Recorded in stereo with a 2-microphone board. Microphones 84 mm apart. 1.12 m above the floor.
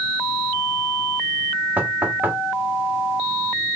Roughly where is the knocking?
Right.